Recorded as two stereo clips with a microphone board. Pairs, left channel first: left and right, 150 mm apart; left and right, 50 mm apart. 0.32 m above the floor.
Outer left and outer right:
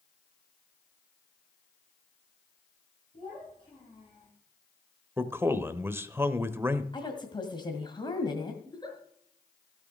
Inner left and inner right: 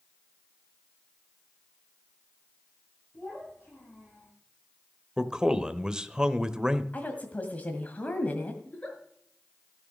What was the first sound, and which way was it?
A child speaking, 40° left (ahead or behind).